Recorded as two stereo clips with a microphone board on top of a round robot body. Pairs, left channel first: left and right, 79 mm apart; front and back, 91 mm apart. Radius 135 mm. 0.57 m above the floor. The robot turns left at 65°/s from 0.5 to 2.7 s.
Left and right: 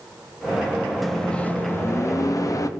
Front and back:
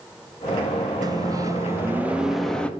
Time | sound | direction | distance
1.0 | a microwave | straight behind | 0.6 m